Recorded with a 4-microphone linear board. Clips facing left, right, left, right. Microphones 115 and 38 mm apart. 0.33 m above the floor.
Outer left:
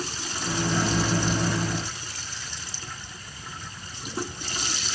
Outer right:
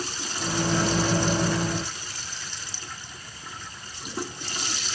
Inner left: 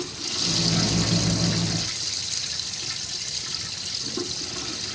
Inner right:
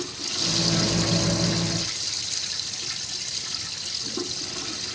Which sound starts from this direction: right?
A microwave, at 0.4 s.